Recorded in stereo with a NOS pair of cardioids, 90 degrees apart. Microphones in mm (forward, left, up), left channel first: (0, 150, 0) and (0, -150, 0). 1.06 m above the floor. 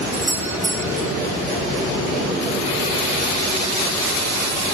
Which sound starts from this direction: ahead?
A doorbell, at 0.1 s.